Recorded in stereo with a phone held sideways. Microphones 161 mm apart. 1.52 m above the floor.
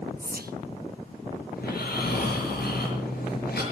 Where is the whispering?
70° right (ahead or behind), 0.9 m.